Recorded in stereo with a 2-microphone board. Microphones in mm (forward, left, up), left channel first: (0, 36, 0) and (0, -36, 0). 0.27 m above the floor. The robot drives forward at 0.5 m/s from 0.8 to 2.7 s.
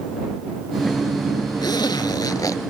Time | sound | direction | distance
1.6 | a zipper | 80° left | 0.6 m